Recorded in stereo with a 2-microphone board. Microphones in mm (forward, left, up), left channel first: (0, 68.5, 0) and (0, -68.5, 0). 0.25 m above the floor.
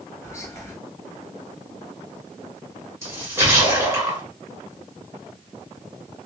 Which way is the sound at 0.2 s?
20° left (ahead or behind).